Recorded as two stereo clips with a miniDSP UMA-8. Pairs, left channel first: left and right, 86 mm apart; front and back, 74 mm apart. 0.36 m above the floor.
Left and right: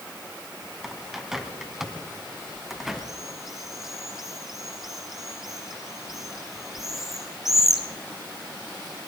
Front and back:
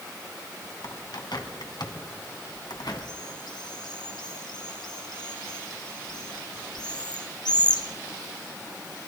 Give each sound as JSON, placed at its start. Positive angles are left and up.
{"t": 0.8, "sound": "a bird", "azimuth_deg": 0, "distance_m": 1.9}